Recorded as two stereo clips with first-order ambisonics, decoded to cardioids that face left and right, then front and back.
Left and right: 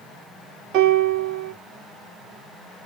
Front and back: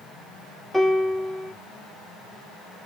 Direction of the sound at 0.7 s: 90° right.